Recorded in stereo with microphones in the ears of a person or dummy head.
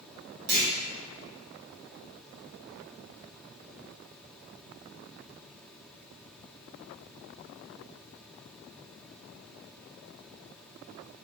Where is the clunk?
50° right (ahead or behind), 1.4 m.